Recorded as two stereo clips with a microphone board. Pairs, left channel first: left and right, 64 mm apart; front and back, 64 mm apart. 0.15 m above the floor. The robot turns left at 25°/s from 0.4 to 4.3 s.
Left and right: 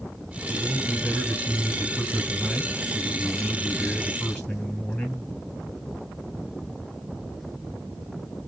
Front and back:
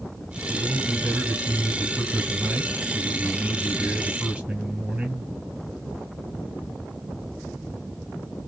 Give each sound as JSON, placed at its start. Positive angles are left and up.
{"t": 0.5, "sound": "a man speaking", "azimuth_deg": -125, "distance_m": 1.8}